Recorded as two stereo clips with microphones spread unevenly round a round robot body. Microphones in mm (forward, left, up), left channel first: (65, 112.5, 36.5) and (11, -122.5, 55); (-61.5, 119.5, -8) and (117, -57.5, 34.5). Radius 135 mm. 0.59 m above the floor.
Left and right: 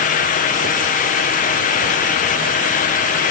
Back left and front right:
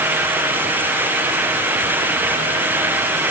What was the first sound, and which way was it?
Only background noise.